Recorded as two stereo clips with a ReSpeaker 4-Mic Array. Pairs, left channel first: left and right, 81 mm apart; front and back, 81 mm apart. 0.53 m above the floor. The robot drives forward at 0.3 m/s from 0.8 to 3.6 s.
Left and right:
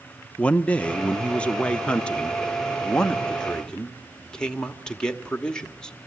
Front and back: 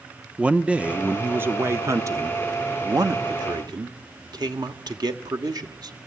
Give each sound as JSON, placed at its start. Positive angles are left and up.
{"t": 0.4, "sound": "a man speaking", "azimuth_deg": 135, "distance_m": 0.7}